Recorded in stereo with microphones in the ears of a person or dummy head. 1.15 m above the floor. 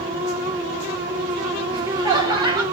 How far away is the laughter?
About 2.5 m.